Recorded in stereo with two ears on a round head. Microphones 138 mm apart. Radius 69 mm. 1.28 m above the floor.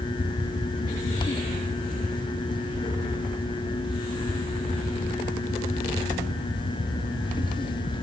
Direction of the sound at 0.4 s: 50° left (ahead or behind).